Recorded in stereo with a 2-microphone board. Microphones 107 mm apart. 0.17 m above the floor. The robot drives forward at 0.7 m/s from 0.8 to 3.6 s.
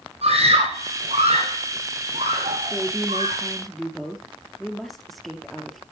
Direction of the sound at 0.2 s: 75° right (ahead or behind).